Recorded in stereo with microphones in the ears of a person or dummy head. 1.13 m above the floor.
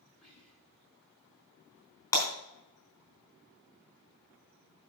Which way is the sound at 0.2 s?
10° left (ahead or behind).